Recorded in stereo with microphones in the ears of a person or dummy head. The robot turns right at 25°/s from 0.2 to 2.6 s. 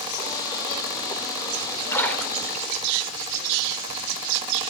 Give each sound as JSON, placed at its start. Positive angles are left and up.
{"t": 1.9, "sound": "a splash", "side_deg": 10, "distance_m": 3.5}